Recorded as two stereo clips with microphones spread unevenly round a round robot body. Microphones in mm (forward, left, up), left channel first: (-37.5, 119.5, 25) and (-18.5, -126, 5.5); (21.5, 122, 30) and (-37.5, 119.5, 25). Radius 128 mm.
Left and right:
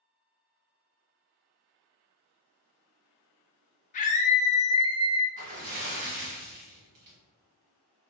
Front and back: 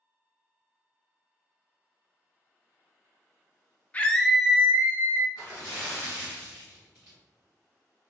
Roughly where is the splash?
Ahead right.